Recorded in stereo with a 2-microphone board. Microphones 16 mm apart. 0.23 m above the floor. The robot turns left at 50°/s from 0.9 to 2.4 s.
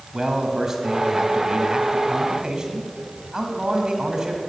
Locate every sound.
0.1 s a man speaking: 20° right, 1.9 m; by 4.4 s 95° right, 1.9 m